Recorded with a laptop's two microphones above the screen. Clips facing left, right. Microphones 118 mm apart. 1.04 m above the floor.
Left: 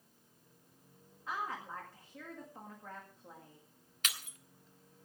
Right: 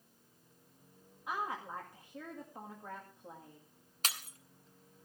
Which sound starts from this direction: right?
Breaking glass, at 4.0 s.